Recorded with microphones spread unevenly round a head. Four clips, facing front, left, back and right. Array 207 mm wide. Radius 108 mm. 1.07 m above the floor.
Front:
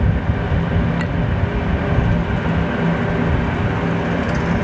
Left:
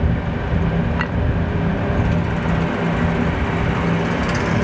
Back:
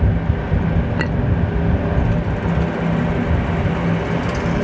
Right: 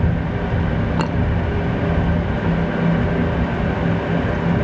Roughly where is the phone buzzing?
No phone buzzing in this recording.